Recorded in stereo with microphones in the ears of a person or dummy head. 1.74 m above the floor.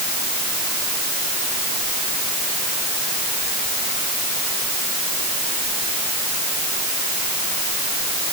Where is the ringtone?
I don't hear a ringtone.